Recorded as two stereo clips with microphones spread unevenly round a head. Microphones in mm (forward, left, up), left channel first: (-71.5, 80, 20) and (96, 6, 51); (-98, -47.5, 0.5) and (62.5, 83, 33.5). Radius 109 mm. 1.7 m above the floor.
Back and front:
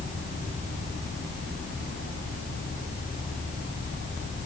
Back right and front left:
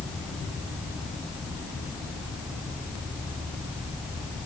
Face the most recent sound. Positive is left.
No sound to turn to.